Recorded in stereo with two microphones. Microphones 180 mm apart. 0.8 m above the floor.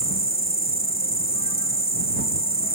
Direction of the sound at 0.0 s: 55° left (ahead or behind).